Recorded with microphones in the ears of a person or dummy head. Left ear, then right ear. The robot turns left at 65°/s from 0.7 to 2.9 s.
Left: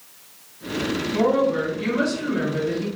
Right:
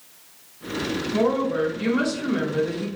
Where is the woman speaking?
20° left, 0.7 m; by 2.9 s 95° right, 0.7 m.